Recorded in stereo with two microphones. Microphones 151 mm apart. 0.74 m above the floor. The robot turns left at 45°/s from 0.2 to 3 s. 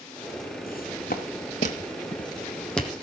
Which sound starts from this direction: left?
Footsteps, at 0.7 s.